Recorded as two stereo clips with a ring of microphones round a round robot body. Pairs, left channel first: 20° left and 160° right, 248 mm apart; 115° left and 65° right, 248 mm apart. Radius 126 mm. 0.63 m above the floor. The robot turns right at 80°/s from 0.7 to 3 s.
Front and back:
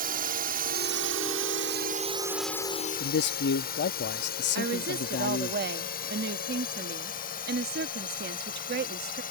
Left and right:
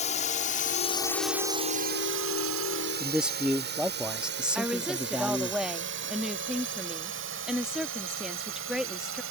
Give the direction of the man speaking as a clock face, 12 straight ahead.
11 o'clock.